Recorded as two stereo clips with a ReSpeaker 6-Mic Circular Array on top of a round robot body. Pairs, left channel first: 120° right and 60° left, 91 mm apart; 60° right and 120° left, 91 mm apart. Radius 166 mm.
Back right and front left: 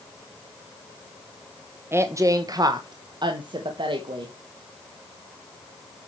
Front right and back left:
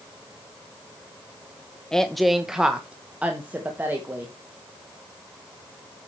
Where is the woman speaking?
20° left, 1.0 m; by 4.3 s 55° left, 1.9 m.